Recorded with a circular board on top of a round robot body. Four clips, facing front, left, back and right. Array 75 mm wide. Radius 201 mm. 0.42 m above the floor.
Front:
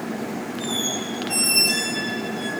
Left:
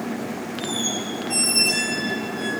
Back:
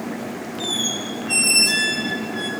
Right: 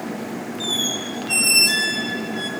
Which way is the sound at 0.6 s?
125° right.